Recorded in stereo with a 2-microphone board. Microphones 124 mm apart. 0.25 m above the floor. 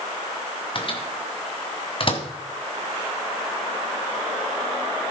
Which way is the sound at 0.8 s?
45° left (ahead or behind).